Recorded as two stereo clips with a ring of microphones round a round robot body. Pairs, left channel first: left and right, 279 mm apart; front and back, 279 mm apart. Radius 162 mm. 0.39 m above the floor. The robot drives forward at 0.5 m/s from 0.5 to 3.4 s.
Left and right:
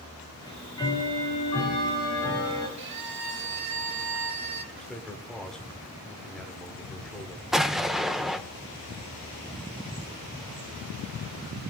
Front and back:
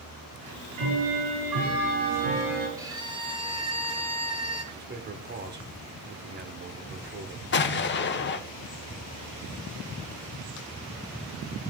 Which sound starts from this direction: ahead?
An explosion, at 7.5 s.